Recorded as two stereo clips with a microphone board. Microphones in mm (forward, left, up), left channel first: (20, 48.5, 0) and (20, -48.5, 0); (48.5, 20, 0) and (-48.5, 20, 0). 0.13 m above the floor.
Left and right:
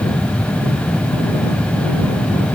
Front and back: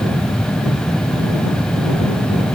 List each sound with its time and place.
Only background noise.